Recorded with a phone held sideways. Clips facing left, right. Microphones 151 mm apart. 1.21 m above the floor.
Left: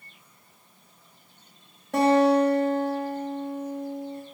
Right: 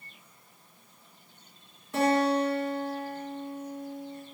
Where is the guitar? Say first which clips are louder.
Left 6 dB; 70° left (ahead or behind), 1.9 m.